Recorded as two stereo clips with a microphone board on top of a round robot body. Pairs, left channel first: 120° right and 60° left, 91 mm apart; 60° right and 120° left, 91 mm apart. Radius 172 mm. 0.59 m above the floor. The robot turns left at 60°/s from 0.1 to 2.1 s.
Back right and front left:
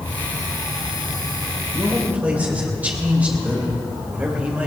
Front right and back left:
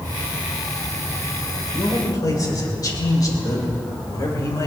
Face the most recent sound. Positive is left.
turn(degrees=-15)